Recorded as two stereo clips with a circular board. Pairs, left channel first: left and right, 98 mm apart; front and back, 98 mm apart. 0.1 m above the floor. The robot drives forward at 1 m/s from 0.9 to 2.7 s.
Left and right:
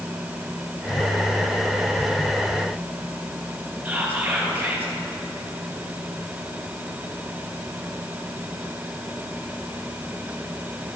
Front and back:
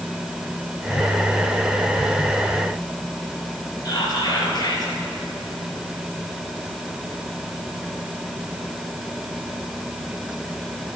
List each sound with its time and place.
3.9 s whispering: 25° right, 1.8 m